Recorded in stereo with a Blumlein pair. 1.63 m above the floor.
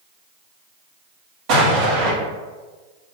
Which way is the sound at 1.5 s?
40° right.